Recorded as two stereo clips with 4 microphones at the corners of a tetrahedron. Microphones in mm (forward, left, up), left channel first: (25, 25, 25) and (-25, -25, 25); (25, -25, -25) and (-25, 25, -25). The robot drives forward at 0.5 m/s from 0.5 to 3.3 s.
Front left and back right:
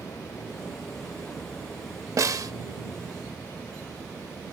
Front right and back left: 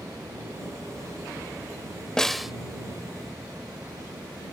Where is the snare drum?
125° right; by 2.5 s 140° right.